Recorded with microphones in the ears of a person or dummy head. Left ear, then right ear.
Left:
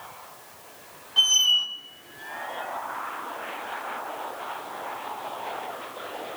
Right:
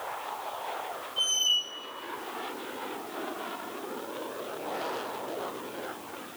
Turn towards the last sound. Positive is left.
turn(degrees=40)  # may be behind; listen again after turning